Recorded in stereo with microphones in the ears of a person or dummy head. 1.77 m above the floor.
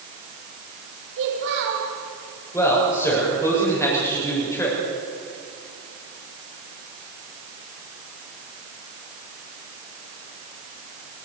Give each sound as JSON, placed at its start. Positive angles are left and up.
{"t": 1.2, "sound": "a child speaking", "side_deg": -70, "distance_m": 4.5}
{"t": 2.5, "sound": "a man speaking", "side_deg": 10, "distance_m": 6.5}